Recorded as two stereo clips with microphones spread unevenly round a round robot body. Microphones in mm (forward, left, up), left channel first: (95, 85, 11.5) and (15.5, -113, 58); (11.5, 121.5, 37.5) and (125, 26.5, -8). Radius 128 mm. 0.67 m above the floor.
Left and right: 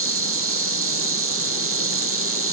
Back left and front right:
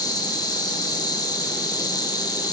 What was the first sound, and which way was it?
An insect, 140° right.